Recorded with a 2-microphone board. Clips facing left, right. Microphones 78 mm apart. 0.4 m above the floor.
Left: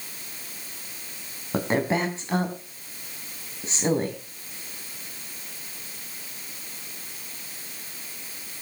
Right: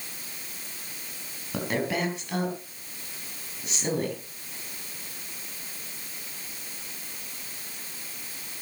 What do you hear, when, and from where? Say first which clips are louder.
1.5 s a woman speaking: left 4 dB; 30° left (ahead or behind), 3.5 m